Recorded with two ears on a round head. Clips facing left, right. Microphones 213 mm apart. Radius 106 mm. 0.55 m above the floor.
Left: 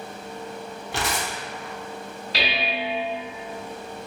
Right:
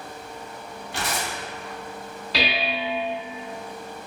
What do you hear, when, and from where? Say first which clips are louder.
0.9 s tearing paper: left 1 dB; 55° left (ahead or behind), 0.7 m
2.3 s dishes clattering: right 1 dB; 70° right (ahead or behind), 1.7 m